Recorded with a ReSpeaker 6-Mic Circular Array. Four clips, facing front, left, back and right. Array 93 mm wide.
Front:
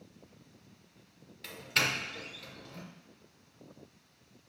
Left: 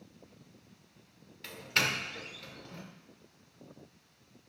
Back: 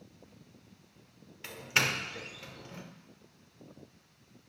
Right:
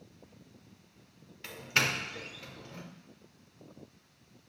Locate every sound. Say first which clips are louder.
1.4 s a doorbell: right 1 dB, back 1 dB; 160° right, 1.2 m